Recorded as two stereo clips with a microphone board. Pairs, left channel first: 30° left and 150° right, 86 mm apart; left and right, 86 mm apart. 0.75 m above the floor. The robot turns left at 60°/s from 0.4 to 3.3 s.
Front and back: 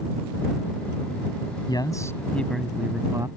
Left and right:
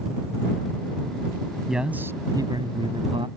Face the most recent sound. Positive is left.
turn(degrees=-100)